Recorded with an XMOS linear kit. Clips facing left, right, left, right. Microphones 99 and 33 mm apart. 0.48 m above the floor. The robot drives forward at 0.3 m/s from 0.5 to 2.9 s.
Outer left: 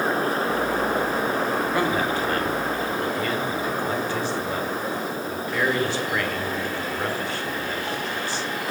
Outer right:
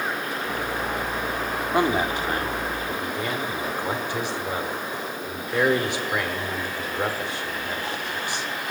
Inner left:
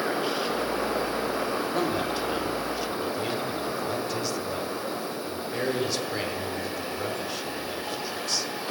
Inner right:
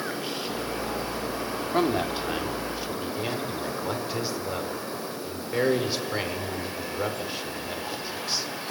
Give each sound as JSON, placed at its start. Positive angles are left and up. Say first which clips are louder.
{"t": 1.7, "sound": "a man speaking", "louder": "outer right 1 dB, inner right 6 dB", "side_deg": -20, "distance_m": 0.8}